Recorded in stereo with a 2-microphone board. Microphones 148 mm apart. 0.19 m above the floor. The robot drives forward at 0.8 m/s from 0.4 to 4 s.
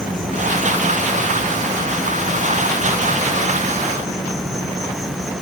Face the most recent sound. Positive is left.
turn(degrees=-45)  # may be behind; listen again after turning